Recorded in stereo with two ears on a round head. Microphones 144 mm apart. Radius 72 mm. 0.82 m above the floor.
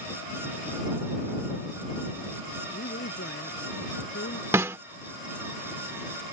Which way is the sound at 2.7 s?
85° left.